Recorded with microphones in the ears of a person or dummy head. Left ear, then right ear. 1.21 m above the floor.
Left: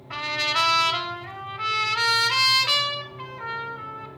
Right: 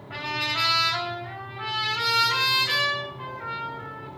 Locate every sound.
0.1 s a trumpet: 80° left, 1.8 m